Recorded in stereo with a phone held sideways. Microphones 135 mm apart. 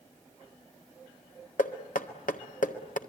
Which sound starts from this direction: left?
Knocking, at 1.6 s.